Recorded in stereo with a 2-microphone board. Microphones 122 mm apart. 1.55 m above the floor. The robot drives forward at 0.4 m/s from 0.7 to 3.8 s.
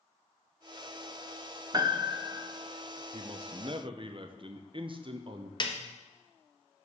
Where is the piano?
35° right (ahead or behind), 0.8 m; by 2.5 s 30° right (ahead or behind), 0.9 m.